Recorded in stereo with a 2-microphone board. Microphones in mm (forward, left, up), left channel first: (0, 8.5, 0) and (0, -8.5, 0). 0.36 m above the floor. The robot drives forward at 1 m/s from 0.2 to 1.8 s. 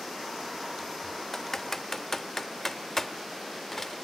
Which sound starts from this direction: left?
Typing on a keyboard, at 1.3 s.